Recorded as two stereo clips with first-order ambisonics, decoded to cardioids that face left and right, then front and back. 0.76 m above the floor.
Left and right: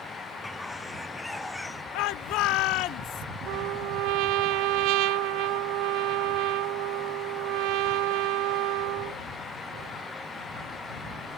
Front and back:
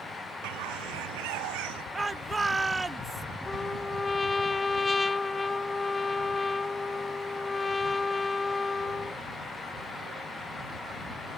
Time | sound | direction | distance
0.4 | a bird | straight behind | ?
1.9 | a shout | 105° left | ?
3.5 | a trumpet | 80° right | ?